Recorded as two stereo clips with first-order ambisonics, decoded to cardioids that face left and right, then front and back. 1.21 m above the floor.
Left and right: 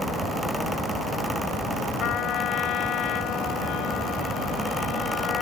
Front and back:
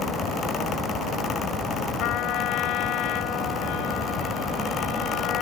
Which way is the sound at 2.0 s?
40° left.